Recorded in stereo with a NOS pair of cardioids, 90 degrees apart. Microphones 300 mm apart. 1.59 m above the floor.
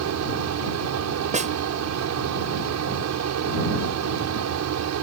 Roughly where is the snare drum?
Ahead right.